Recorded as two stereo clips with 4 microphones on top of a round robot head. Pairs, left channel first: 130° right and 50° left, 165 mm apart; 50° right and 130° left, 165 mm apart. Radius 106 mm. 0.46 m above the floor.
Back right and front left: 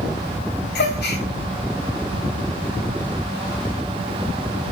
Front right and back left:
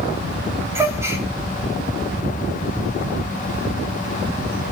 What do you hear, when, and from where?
0.8 s a gasp: 155° right, 3.5 m